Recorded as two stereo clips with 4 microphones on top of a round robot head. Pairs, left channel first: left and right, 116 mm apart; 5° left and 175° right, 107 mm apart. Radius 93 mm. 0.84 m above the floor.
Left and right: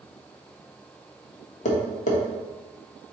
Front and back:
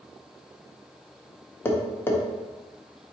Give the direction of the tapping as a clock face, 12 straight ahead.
9 o'clock.